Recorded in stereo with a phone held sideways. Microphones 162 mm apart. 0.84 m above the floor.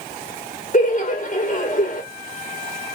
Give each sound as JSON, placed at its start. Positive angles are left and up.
{"t": 0.7, "sound": "laughter", "side_deg": 55, "distance_m": 1.1}